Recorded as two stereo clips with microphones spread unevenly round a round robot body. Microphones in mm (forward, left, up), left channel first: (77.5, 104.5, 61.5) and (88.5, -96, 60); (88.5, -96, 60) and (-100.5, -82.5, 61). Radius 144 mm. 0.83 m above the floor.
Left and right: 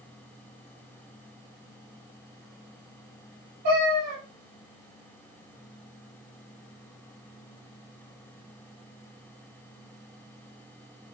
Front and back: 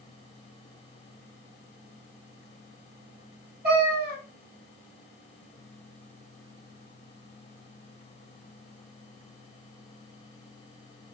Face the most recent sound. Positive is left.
turn(degrees=-150)